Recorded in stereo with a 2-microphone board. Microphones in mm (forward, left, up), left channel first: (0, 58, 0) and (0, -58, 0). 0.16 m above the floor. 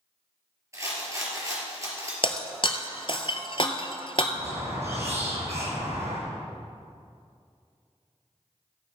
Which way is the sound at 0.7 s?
25° right (ahead or behind).